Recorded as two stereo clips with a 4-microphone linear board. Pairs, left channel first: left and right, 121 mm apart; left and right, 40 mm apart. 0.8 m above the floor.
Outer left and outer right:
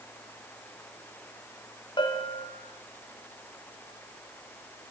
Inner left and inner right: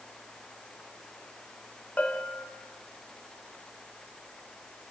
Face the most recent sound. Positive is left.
turn(degrees=40)  # may be behind; listen again after turning